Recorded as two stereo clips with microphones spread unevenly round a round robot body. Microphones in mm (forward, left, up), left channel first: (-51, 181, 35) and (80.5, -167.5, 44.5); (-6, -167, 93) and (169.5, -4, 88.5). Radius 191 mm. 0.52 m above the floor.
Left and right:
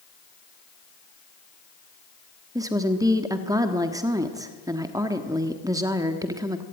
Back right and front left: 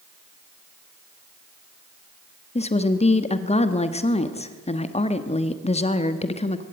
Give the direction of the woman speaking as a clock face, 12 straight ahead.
5 o'clock.